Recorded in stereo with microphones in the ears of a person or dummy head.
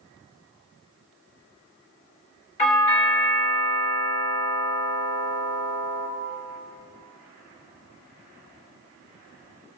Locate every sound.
2.6 s a doorbell: 35° left (ahead or behind), 1.3 m